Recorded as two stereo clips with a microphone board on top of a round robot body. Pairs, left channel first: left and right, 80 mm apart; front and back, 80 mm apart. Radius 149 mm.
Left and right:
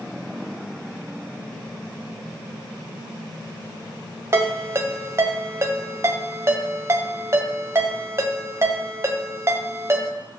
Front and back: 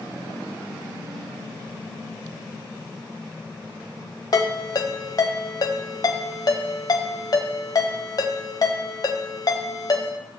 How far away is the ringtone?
About 1.6 m.